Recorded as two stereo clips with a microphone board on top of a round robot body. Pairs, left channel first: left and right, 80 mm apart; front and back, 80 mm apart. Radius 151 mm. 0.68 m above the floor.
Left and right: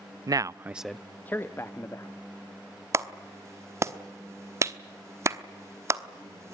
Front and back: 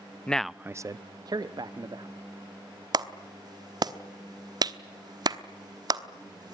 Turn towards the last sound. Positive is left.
turn(degrees=-145)